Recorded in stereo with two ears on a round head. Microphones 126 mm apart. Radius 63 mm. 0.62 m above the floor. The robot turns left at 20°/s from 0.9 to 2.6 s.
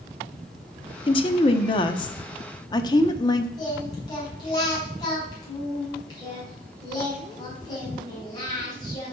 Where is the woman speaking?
85° left, 0.9 m; by 3.5 s 55° left, 0.9 m.